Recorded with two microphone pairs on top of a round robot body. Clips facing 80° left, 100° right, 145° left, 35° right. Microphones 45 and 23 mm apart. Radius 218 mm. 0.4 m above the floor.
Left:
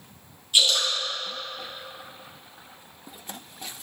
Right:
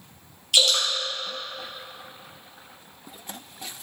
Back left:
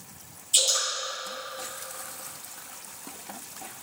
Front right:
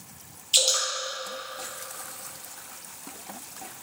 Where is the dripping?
90° right, 2.5 m.